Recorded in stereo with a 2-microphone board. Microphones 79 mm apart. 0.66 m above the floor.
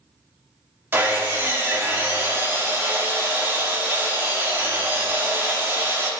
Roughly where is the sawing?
Right.